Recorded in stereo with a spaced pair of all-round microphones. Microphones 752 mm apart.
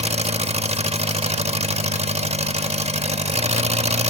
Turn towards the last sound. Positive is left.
turn(degrees=-10)  # may be behind; listen again after turning